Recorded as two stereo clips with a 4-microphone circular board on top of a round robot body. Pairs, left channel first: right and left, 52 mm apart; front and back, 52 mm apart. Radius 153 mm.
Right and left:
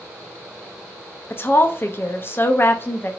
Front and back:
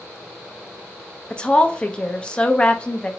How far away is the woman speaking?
About 0.7 m.